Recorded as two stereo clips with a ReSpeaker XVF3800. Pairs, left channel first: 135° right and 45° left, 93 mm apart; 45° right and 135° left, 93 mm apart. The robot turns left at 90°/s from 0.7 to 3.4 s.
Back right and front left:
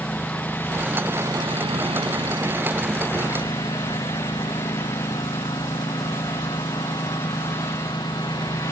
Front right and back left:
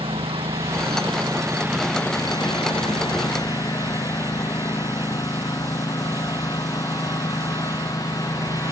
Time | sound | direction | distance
0.0 | a lawn mower | 145° left | ?